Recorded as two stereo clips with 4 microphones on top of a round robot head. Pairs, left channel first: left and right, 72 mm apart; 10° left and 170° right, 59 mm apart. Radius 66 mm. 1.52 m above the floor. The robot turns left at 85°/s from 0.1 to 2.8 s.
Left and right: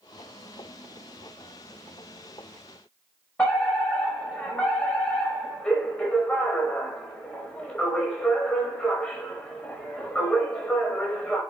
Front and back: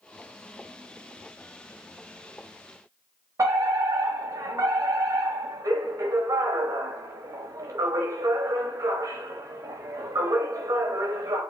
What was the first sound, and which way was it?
A fire alarm, 165° left.